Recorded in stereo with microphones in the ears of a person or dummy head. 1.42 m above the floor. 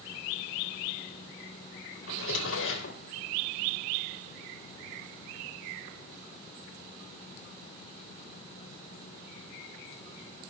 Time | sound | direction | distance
2.1 | a drawer | 65° left (ahead or behind) | 3.5 m